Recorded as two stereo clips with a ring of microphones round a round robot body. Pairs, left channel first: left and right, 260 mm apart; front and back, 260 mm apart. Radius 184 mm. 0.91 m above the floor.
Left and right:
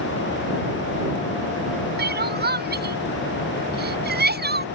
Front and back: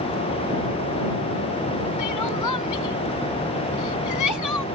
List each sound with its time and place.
2.0 s crying: 40° right